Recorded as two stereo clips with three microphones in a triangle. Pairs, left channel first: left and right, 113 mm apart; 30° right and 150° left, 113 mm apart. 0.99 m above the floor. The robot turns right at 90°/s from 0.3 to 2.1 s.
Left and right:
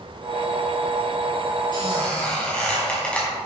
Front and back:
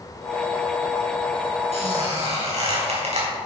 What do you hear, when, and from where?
1.7 s a squeak: 135° left, 5 m; by 3.3 s 170° left, 5 m